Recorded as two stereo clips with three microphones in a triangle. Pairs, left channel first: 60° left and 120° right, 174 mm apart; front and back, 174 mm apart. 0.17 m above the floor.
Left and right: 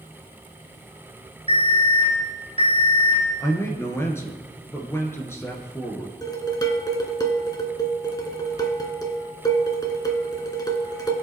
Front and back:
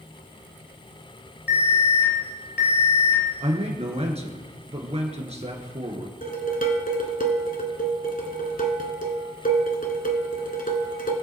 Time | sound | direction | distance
1.5 | an alarm | 5° left | 5 m
3.4 | a man speaking | 130° left | 2.5 m
6.2 | dishes clattering | 5° right | 1.6 m